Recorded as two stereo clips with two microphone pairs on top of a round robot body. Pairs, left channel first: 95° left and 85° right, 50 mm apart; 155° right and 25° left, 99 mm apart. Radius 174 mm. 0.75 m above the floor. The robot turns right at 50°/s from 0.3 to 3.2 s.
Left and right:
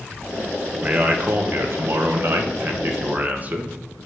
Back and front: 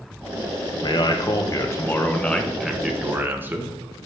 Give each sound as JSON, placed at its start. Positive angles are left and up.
{"t": 0.8, "sound": "a man speaking", "azimuth_deg": -150, "distance_m": 1.2}